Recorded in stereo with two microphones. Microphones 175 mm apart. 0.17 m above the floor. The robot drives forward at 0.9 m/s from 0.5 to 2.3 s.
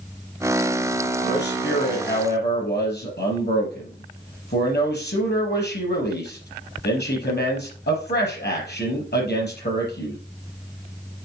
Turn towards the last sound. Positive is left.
turn(degrees=65)  # may be behind; listen again after turning